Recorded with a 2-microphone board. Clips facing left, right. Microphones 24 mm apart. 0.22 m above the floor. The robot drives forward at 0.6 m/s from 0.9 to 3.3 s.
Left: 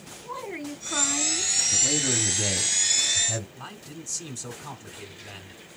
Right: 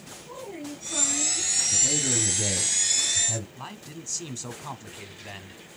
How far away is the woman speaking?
About 2 m.